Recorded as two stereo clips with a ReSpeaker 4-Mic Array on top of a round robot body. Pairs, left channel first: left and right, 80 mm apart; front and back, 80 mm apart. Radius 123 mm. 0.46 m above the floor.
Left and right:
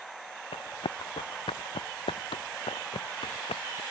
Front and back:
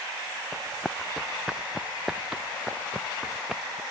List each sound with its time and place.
0.5 s running footsteps: 85° left; by 3.8 s 95° left